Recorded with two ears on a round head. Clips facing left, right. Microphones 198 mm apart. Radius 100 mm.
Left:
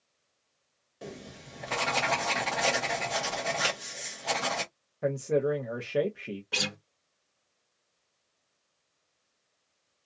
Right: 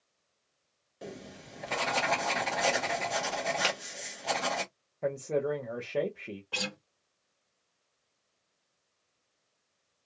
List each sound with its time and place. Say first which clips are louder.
1.0 s writing: left 1 dB; centre (ahead or behind), 0.7 m
3.6 s a finger snap: even; 25° right (ahead or behind), 1.4 m
5.0 s a man speaking: left 3 dB; 15° left (ahead or behind), 0.7 m
6.5 s a guitar: right 1 dB; 25° left (ahead or behind), 1.0 m